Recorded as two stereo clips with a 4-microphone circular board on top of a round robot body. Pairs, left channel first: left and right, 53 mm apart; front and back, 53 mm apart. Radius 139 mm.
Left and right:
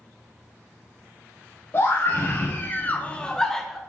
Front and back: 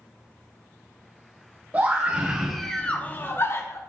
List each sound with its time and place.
1.7 s a scream: 130° left, 1.1 m; by 3.8 s straight ahead, 1.1 m